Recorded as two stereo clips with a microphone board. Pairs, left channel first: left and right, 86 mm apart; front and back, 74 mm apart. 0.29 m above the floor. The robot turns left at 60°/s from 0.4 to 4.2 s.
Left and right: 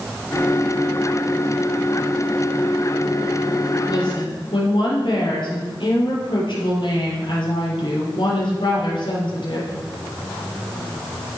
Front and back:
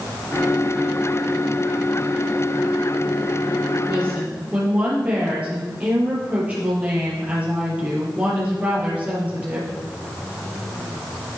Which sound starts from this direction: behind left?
A woman speaking, at 3.9 s.